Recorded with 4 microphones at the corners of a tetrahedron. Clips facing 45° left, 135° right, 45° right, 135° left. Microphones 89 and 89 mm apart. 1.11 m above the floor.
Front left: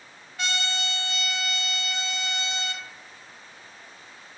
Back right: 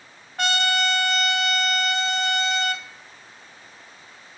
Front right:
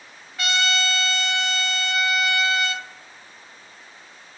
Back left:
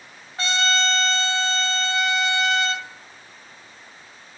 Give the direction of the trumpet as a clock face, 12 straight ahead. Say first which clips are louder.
Back right 8 dB, back left 2 dB; 6 o'clock.